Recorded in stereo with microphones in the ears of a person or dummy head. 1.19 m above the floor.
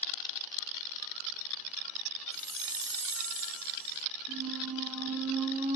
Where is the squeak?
30° right (ahead or behind), 0.9 m.